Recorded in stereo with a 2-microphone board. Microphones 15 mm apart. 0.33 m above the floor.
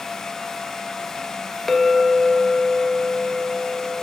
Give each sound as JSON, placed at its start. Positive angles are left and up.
{"t": 1.7, "sound": "a clink", "side_deg": 30, "distance_m": 0.5}